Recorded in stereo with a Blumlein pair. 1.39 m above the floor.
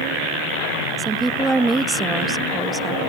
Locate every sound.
1.0 s a woman speaking: 10° right